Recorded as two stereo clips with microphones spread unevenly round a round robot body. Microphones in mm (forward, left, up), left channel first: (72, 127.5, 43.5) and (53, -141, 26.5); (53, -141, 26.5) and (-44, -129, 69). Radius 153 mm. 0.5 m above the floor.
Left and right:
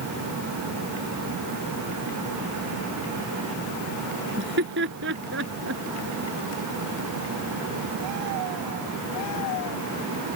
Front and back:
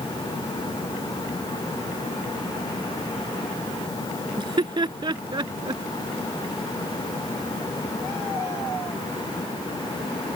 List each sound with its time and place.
4.4 s laughter: 150° right; by 5.8 s 145° right